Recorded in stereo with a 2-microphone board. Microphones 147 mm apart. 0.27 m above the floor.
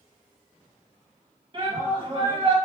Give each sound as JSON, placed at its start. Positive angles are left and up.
{"t": 1.5, "sound": "a shout", "side_deg": -35, "distance_m": 1.8}